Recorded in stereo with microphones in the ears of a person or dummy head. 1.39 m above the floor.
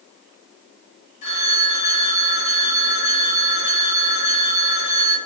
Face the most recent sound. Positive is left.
turn(degrees=50)  # may be behind; listen again after turning